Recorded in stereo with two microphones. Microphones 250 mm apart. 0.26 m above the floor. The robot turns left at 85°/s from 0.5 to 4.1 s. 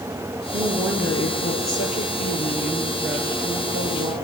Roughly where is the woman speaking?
Behind right.